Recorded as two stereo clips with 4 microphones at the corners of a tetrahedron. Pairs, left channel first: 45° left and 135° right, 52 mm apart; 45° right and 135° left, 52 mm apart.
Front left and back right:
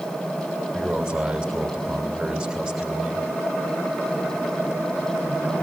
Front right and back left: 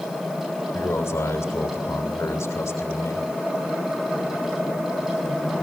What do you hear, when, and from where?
0.7 s a man speaking: 60° right, 3.5 m